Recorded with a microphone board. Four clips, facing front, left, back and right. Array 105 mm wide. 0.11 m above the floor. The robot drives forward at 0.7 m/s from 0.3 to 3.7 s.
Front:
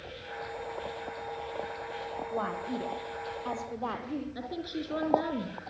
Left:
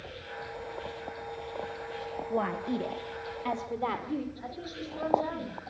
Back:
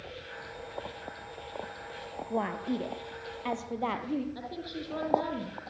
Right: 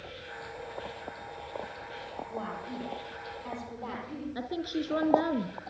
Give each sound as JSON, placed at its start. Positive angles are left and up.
{"t": 2.3, "sound": "a woman speaking", "azimuth_deg": 140, "distance_m": 2.5}
{"t": 4.3, "sound": "a woman speaking", "azimuth_deg": -85, "distance_m": 5.0}